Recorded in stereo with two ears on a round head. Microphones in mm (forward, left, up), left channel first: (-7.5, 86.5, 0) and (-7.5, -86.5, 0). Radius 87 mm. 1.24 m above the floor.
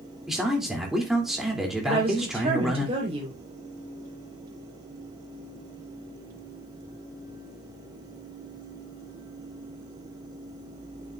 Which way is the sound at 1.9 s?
30° right (ahead or behind).